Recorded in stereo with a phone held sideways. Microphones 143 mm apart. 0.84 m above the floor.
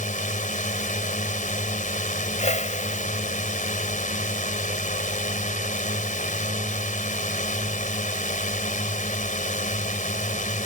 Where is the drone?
65° left (ahead or behind).